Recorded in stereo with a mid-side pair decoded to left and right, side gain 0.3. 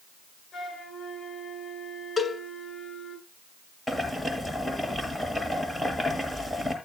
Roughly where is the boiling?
Ahead.